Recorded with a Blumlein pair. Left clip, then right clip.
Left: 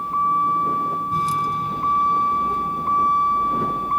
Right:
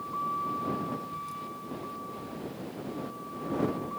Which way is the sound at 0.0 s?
30° left.